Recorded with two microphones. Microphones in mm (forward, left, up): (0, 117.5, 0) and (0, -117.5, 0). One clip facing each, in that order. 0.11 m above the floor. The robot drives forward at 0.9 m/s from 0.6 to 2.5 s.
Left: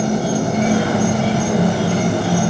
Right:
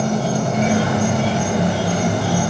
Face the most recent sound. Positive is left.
turn(degrees=25)  # may be behind; listen again after turning